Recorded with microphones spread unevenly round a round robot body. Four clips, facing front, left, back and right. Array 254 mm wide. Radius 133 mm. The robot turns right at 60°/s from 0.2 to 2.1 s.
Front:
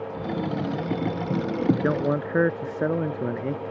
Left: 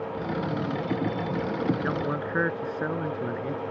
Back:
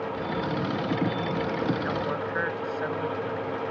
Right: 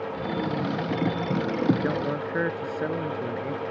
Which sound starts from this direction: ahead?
A man speaking, at 1.8 s.